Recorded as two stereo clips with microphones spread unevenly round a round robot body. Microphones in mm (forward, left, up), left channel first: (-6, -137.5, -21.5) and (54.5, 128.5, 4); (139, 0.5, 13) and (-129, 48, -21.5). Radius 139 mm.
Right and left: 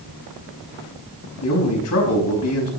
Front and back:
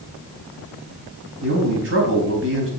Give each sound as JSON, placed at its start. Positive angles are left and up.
{"t": 1.4, "sound": "a man speaking", "azimuth_deg": -140, "distance_m": 4.5}